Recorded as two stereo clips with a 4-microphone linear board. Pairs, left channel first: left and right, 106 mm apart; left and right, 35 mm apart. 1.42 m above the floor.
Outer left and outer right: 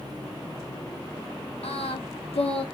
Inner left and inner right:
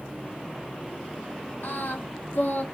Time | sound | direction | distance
1.6 | singing | 80° left | 0.7 m